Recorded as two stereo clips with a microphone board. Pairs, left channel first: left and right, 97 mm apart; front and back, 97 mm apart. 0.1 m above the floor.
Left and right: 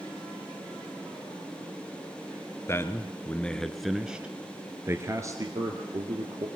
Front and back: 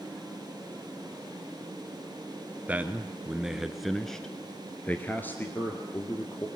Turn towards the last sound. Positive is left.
turn(degrees=-60)